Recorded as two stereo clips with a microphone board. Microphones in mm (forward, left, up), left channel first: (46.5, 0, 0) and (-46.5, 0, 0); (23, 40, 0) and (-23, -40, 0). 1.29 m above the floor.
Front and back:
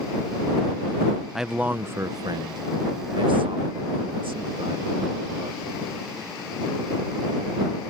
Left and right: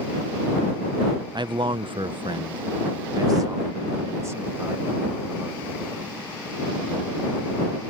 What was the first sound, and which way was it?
A man speaking, 95° right.